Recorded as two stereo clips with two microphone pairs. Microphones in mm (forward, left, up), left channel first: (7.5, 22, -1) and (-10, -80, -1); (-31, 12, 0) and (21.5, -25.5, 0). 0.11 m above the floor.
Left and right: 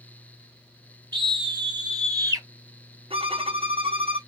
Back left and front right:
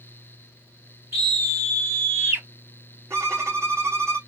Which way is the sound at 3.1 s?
80° right.